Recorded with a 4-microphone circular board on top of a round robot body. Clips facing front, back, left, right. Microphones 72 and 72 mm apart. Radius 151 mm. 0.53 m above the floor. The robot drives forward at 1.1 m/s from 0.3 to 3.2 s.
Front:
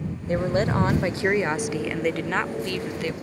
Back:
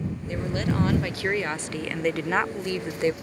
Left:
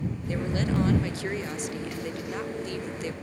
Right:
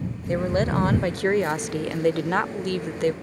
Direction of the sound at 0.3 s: 45° right.